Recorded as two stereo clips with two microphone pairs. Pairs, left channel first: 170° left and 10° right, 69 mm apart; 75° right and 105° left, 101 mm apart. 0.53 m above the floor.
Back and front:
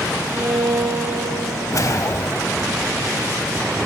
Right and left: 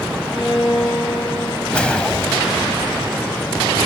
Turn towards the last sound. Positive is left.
turn(degrees=-155)